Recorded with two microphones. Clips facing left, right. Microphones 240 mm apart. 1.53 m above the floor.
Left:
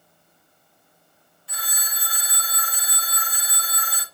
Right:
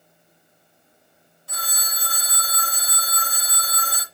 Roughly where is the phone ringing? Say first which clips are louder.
Right 4 dB; right.